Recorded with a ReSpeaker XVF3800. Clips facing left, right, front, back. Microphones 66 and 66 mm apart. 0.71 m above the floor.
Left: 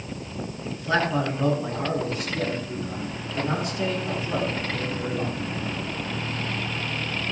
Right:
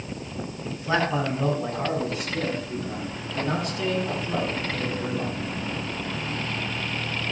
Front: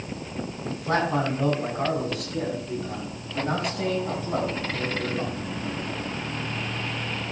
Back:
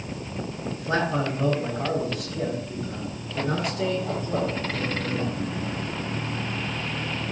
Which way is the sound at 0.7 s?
15° right.